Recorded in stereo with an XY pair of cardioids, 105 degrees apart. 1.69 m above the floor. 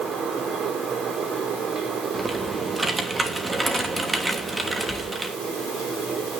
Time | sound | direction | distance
0.0 | a fan | 55° right | 4.5 m
2.1 | typing on a keyboard | 25° right | 3 m